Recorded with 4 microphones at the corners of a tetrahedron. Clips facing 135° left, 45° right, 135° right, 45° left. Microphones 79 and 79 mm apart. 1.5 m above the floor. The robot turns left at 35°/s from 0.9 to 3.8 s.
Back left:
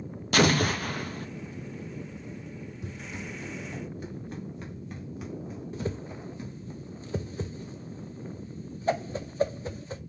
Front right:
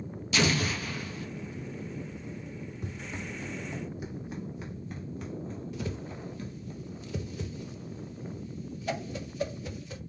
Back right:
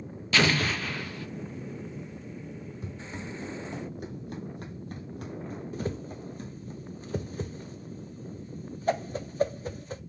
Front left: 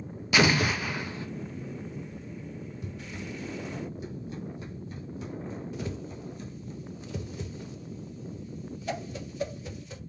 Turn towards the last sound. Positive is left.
turn(degrees=-175)